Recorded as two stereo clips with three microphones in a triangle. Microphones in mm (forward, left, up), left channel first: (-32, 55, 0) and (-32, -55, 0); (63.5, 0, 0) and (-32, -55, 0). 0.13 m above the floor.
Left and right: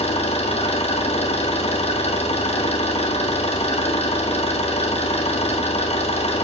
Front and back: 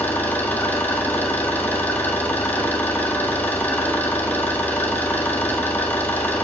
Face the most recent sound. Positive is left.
turn(degrees=105)